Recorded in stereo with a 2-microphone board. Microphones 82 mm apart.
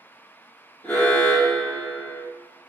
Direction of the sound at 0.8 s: 20° left (ahead or behind).